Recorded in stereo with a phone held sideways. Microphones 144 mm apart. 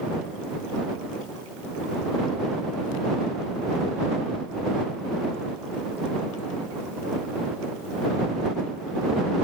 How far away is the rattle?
No rattle in this recording.